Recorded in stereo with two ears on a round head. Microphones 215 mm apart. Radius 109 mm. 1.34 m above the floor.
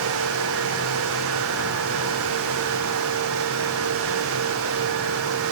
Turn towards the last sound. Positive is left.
No sound to turn to.